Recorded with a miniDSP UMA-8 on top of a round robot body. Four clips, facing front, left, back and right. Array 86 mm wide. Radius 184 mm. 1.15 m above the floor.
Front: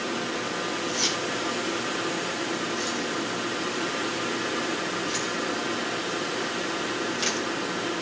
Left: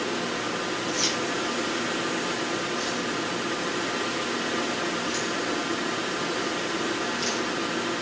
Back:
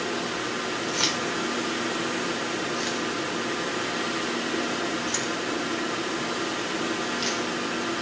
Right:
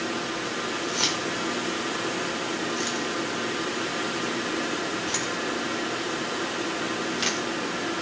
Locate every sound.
0.9 s keys jangling: 150° right, 4 m; by 7.5 s 80° right, 3.5 m